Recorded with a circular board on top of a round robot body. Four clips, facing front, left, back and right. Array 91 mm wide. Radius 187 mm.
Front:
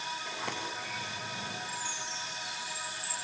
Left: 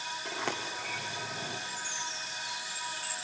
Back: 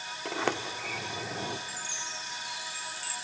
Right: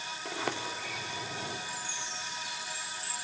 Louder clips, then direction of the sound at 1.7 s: Left 1 dB, front 1 dB; 160° left.